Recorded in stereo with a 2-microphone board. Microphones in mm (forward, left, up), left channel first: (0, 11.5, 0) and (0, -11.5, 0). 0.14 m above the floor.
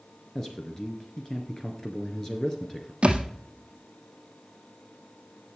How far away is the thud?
About 1.5 m.